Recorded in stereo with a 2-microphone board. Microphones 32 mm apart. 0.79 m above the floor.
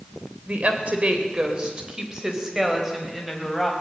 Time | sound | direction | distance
0.5 | a woman speaking | 50° right (ahead or behind) | 3 m